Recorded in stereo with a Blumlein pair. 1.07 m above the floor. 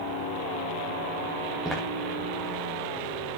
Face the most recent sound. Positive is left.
turn(degrees=-5)